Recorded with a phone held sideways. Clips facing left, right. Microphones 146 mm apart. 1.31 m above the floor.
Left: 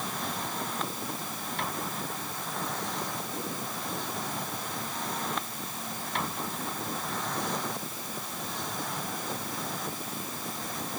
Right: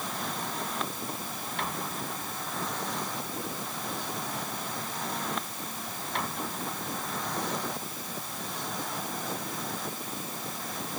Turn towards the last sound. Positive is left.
No sound to turn to.